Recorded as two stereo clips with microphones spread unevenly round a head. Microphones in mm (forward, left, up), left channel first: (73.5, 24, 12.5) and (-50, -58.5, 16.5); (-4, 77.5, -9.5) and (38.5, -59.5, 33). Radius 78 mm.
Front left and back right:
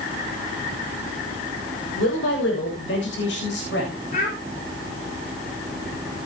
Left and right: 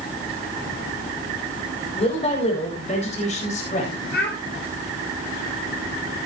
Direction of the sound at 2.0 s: 55° left.